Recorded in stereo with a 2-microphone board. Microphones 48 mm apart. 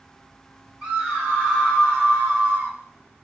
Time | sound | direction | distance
0.8 | a scream | 30° right (ahead or behind) | 2.5 m